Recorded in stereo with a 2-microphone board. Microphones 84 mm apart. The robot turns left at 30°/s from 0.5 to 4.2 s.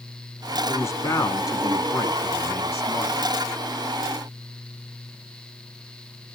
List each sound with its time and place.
0.7 s a man speaking: 115° left, 1.4 m; by 3.1 s 45° left, 1.4 m